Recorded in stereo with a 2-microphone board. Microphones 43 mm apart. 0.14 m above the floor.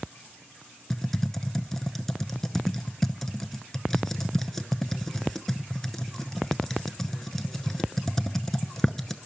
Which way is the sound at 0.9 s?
10° left (ahead or behind).